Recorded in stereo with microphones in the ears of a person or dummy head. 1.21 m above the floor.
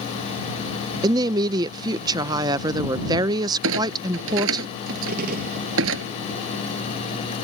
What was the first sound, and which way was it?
A woman speaking, 15° right (ahead or behind).